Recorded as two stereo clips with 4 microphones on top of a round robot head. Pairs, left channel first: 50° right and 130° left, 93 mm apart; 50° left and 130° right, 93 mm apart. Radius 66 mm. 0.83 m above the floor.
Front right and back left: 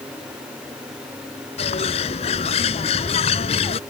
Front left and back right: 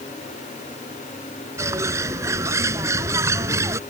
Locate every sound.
1.6 s a bird: 70° right